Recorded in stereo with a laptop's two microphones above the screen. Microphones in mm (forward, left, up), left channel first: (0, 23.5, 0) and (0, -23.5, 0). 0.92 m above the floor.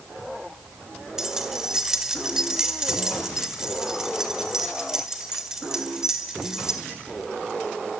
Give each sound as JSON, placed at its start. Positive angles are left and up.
{"t": 1.2, "sound": "keys jangling", "side_deg": -10, "distance_m": 1.8}